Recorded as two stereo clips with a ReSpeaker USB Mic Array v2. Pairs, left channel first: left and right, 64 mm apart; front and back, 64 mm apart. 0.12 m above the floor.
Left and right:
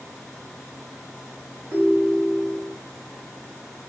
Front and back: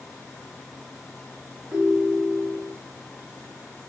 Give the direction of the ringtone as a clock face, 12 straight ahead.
5 o'clock.